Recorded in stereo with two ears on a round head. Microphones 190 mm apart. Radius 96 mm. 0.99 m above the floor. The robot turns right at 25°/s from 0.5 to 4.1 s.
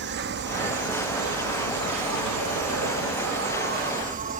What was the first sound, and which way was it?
An insect, 125° right.